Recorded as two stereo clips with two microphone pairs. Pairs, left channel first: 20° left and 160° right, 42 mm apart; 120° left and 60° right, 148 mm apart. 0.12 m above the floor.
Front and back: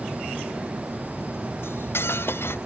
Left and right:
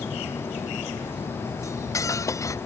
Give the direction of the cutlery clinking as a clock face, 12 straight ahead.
10 o'clock.